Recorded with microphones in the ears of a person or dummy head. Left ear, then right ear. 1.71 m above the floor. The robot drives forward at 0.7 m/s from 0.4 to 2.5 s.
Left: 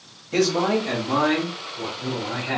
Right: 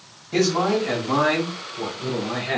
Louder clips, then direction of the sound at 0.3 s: Even; 10° left (ahead or behind).